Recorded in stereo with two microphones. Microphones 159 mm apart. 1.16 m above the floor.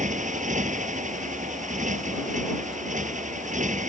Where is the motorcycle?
50° right (ahead or behind).